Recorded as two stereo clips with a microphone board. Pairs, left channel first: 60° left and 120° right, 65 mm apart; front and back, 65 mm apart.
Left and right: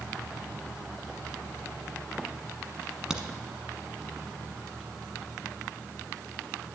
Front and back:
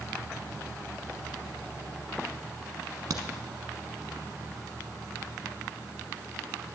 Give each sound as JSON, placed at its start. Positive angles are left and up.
{"t": 3.1, "sound": "a crack", "azimuth_deg": 160, "distance_m": 1.1}